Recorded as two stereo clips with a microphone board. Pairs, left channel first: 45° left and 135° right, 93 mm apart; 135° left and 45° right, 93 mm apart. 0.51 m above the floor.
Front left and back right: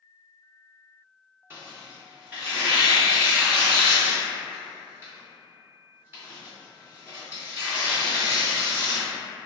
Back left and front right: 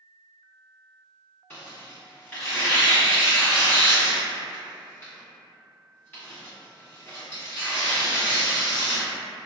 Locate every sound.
1.5 s tearing paper: 170° right, 1.5 m